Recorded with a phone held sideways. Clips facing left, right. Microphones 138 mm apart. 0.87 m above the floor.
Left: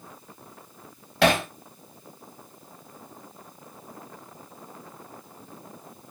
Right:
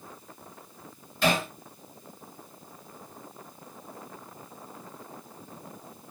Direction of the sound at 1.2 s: 80° left.